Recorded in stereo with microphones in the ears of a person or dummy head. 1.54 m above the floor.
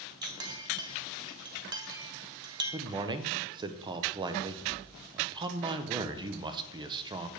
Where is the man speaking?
25° right (ahead or behind), 0.8 m.